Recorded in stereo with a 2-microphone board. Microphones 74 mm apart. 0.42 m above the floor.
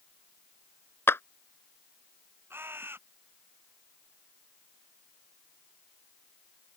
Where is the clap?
30° left (ahead or behind).